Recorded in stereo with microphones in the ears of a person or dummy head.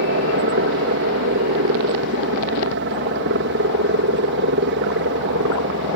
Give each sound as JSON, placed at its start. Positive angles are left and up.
{"t": 0.0, "sound": "a helicopter", "side_deg": -60}